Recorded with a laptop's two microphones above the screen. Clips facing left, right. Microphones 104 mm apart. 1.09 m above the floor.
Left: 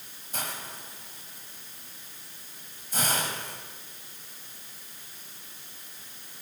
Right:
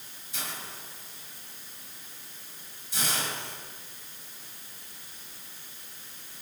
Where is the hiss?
50° left (ahead or behind), 4 m.